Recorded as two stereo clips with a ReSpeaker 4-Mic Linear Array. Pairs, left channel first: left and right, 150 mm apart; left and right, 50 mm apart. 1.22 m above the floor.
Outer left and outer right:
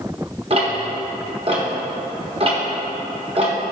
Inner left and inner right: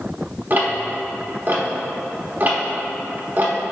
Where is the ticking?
35° right (ahead or behind), 1.0 m.